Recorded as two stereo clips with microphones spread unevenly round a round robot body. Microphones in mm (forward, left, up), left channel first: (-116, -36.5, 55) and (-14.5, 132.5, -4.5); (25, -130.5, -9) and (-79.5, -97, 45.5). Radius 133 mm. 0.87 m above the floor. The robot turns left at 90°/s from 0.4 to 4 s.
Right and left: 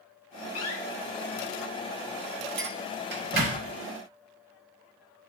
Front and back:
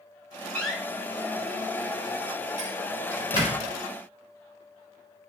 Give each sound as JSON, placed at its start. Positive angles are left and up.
{"t": 0.6, "sound": "a door slam", "azimuth_deg": -85, "distance_m": 1.3}
{"t": 2.6, "sound": "a clink", "azimuth_deg": 80, "distance_m": 2.0}